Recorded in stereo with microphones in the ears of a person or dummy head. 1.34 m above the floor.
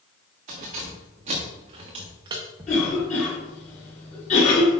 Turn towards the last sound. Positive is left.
turn(degrees=45)  # may be behind; listen again after turning